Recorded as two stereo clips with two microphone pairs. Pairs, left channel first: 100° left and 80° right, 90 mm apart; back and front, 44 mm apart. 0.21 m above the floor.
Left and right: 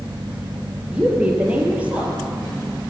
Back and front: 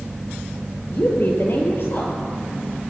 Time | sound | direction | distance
0.9 | a woman speaking | 155° right | 4 m